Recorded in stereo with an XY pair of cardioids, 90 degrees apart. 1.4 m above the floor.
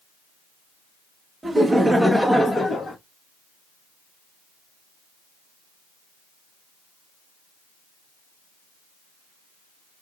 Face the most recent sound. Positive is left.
turn(degrees=40)